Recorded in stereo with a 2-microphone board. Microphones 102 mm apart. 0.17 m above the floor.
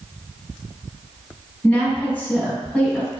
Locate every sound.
1.6 s a woman speaking: 10° left (ahead or behind), 1.0 m